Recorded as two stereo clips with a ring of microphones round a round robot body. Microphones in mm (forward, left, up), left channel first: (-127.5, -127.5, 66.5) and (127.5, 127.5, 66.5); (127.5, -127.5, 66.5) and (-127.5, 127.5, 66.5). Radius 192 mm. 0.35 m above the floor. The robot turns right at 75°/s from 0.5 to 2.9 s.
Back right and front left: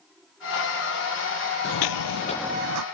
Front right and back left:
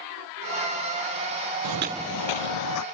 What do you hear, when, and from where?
1.6 s footsteps: 160° left; by 2.8 s 5° left